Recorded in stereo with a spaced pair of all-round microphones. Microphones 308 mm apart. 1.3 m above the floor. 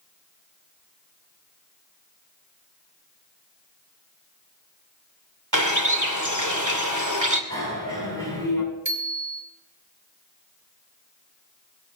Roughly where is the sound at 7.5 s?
Right.